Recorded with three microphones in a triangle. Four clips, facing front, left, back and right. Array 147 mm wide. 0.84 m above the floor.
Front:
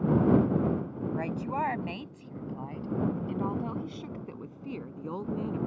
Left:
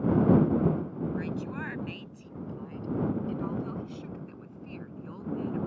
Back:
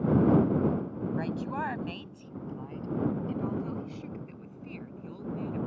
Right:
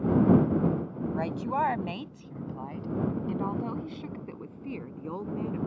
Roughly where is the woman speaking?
Right.